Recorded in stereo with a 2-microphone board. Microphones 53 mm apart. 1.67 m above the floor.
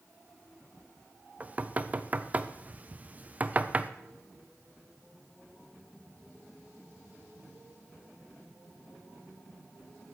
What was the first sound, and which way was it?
Knocking, 30° right (ahead or behind).